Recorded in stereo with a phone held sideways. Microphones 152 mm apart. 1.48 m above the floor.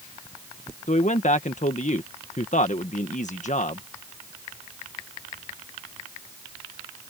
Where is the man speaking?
55° left (ahead or behind).